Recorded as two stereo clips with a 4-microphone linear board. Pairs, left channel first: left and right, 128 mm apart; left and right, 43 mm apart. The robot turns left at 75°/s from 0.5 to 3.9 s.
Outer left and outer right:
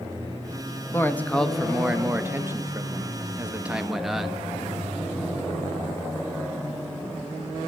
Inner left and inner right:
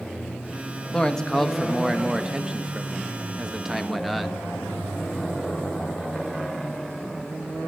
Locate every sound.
0.9 s a man speaking: 20° left (ahead or behind), 0.5 m; by 4.5 s 5° right (ahead or behind), 0.5 m